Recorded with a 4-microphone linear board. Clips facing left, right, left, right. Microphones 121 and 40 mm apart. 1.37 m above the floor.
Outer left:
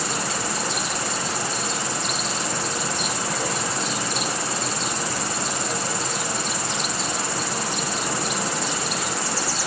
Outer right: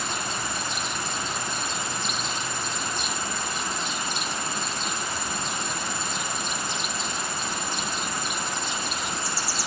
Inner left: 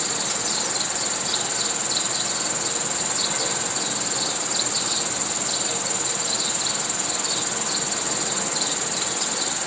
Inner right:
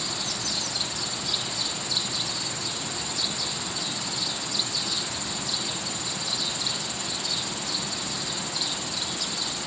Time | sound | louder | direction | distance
0.0 | an insect | outer left 4 dB, inner left 4 dB | 90° left | ?